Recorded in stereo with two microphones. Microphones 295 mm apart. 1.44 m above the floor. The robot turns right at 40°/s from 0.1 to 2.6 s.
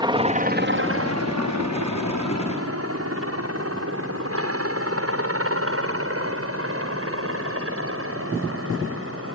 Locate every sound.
0.0 s a helicopter: 15° right (ahead or behind); by 9.3 s 45° right (ahead or behind)